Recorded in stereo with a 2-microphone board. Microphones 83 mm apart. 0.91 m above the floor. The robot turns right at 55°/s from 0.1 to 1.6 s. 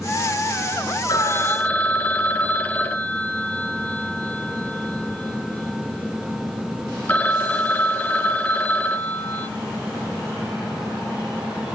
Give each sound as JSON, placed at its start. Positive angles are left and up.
{"t": 1.1, "sound": "a phone ringing", "side_deg": 50, "distance_m": 1.0}